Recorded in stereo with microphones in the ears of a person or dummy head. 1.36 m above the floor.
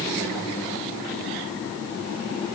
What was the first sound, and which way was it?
Only background noise.